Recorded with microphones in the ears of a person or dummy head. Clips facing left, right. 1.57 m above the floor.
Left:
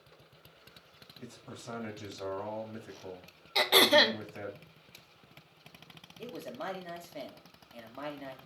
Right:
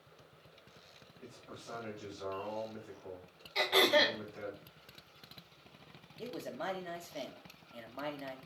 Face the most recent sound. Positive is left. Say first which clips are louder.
# even
turn(degrees=5)  # may be behind; listen again after turning